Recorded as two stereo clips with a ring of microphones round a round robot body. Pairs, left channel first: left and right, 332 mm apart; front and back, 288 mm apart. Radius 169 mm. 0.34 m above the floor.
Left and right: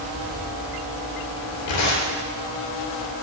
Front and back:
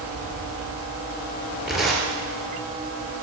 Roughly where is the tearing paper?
Left.